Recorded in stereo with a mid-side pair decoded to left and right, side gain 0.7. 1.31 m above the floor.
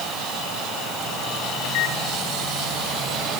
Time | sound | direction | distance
1.6 | a microwave | 60° left | 4.5 m